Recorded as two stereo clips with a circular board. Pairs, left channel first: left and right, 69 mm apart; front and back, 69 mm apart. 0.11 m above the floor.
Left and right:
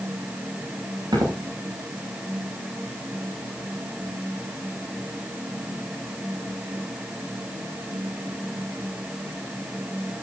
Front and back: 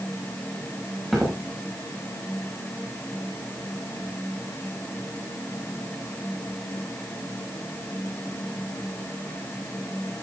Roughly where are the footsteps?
Right.